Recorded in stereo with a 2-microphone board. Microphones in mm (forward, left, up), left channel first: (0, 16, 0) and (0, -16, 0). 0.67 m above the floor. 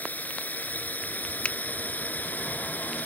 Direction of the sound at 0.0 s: 65° left (ahead or behind).